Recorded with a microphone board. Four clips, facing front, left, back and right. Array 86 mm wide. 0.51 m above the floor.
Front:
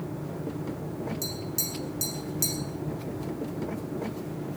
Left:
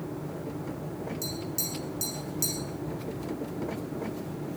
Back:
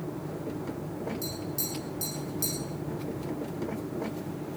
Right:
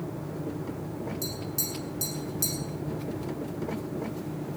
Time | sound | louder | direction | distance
1.2 | tapping | even, even | 10° right | 6.5 m